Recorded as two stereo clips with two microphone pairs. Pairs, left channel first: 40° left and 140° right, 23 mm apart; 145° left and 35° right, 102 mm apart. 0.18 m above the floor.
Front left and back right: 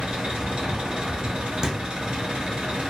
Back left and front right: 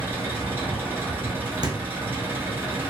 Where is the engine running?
105° right, 1.4 m.